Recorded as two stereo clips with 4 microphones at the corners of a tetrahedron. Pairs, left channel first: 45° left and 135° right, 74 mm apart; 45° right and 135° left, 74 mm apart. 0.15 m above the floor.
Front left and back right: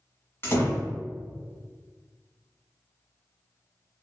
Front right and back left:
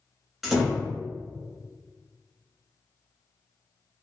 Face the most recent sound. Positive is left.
turn(degrees=50)